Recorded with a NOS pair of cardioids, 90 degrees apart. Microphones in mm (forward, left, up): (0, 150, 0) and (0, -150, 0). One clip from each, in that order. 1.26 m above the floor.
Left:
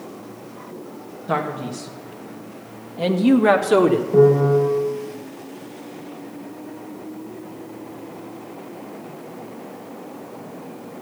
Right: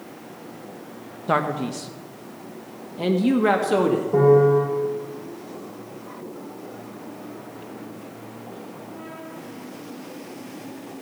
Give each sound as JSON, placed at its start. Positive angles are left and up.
{"t": 1.3, "sound": "a man speaking", "azimuth_deg": -30, "distance_m": 1.8}
{"t": 4.1, "sound": "a piano", "azimuth_deg": -30, "distance_m": 6.5}